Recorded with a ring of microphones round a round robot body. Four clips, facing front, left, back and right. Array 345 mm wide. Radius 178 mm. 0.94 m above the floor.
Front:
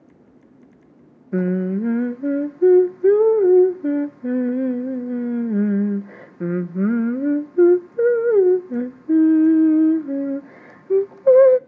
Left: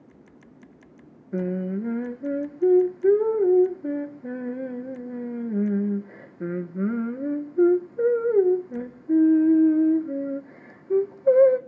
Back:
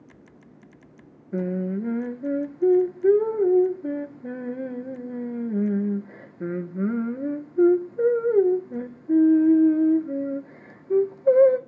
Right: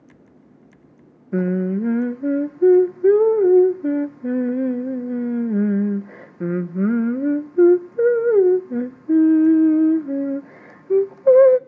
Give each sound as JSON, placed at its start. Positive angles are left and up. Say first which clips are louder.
{"t": 1.3, "sound": "singing", "louder": "right 6 dB, front 6 dB", "azimuth_deg": -45, "distance_m": 0.8}